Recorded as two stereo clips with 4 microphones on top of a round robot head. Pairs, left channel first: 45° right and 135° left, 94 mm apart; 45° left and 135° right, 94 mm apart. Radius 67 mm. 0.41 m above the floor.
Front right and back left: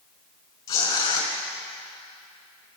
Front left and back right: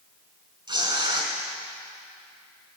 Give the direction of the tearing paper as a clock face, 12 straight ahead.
3 o'clock.